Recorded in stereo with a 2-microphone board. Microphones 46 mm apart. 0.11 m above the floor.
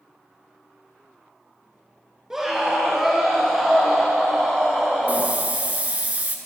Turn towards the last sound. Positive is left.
turn(degrees=-35)  # may be behind; listen again after turning